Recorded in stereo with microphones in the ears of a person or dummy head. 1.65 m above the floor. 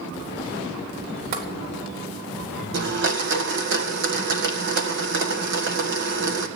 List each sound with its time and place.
1.3 s tapping: 45° right (ahead or behind), 4 m
2.7 s a blender: 55° right (ahead or behind), 1.8 m